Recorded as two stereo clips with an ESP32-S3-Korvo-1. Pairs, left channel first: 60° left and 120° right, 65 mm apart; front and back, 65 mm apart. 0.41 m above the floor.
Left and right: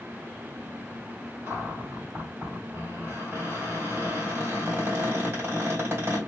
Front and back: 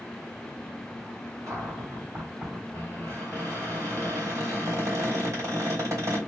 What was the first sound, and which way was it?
A cupboard door, 160° right.